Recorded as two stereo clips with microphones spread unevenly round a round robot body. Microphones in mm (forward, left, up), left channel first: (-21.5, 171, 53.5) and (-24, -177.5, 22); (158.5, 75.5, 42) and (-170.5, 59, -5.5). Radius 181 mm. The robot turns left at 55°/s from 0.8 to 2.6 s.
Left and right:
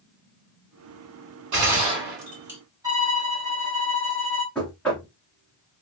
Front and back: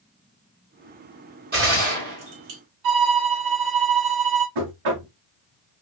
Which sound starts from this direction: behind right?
A gunshot, at 1.5 s.